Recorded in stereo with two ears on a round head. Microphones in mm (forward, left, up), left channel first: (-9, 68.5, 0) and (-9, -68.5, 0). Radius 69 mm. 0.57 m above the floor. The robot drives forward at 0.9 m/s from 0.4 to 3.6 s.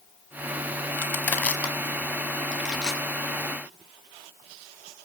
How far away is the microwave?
No microwave in this recording.